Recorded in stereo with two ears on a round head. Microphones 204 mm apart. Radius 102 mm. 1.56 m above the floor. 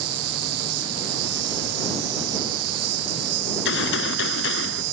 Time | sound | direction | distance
0.0 | an insect | 75° right (ahead or behind) | ?
3.5 | a gunshot | 55° left (ahead or behind) | ?